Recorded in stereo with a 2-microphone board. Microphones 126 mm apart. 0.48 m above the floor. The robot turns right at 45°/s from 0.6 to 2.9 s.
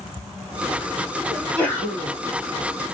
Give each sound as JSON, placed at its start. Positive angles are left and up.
{"t": 1.3, "sound": "a sneeze", "azimuth_deg": -5, "distance_m": 2.5}